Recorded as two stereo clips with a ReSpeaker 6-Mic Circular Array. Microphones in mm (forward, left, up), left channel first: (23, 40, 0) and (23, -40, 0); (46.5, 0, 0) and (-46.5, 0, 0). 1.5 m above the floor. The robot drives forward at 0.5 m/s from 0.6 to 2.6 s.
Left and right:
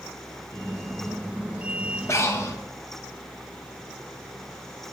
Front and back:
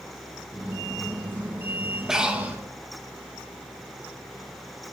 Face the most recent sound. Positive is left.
turn(degrees=125)